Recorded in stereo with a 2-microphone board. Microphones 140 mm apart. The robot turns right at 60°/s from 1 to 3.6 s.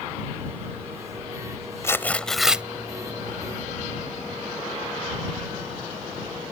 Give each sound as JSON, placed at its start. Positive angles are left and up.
{"t": 1.8, "sound": "tearing paper", "azimuth_deg": 145}